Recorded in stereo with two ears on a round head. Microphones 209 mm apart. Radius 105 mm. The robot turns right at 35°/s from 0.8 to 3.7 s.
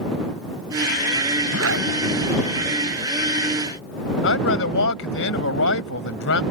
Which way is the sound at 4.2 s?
60° left (ahead or behind).